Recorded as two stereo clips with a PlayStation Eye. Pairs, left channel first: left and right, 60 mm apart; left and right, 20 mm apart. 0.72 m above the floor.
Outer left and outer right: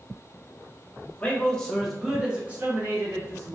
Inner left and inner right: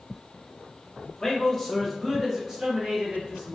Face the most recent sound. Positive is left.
turn(degrees=-50)  # may be behind; listen again after turning